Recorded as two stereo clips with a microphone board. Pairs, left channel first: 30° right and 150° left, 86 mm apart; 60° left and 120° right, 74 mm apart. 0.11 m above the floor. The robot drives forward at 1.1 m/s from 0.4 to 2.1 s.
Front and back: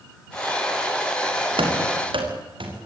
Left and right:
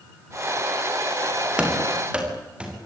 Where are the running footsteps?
160° left, 6.5 m; by 2.9 s 165° left, 8 m.